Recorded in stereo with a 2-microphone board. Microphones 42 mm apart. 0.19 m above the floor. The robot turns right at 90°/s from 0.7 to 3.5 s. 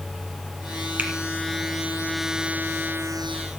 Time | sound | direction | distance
1.0 | a finger snap | 40° right (ahead or behind) | 1.7 m